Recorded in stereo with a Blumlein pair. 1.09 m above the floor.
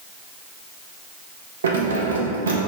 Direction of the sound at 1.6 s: 65° right.